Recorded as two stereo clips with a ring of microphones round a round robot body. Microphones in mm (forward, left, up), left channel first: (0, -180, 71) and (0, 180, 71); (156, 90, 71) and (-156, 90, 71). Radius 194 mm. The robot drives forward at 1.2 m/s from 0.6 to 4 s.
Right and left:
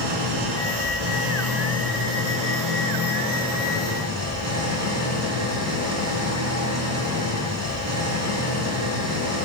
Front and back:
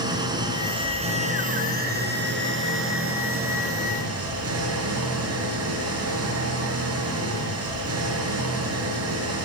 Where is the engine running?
105° left, 4.5 m; by 9.4 s 140° left, 7 m.